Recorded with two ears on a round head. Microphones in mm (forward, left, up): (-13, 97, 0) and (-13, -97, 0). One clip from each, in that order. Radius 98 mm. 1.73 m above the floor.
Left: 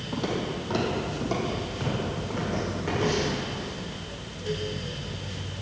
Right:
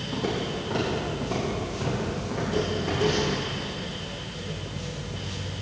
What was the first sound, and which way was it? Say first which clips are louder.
Footsteps: even; 40° left (ahead or behind).